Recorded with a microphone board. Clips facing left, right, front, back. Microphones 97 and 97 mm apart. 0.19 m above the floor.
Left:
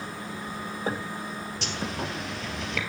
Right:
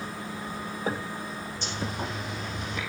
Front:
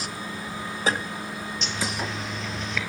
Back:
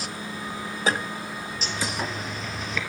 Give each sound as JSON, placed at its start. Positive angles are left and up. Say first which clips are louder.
{"t": 1.6, "sound": "a zipper", "louder": "left 1 dB, back 1 dB", "azimuth_deg": 95, "distance_m": 1.8}